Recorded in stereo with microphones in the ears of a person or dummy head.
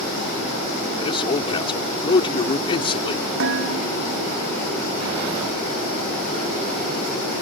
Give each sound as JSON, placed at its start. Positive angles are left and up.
{"t": 0.9, "sound": "a man speaking", "side_deg": 30}
{"t": 3.4, "sound": "dishes clattering", "side_deg": -75}